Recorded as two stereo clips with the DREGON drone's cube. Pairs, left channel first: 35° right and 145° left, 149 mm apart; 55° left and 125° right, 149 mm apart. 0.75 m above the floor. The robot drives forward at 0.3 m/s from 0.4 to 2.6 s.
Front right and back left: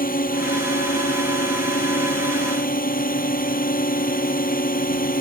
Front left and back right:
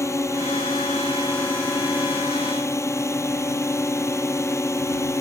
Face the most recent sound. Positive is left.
turn(degrees=-15)